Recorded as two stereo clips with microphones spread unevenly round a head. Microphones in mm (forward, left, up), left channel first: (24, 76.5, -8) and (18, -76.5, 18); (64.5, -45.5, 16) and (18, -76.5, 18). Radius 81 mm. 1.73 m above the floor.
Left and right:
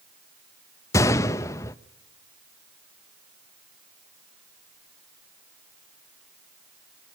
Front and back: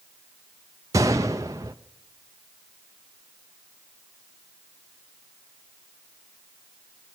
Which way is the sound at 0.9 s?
165° left.